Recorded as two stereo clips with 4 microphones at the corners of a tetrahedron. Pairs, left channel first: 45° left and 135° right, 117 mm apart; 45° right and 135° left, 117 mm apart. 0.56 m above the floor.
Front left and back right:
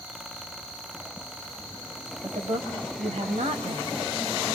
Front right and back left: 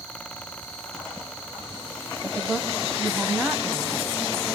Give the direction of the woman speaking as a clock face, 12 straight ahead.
5 o'clock.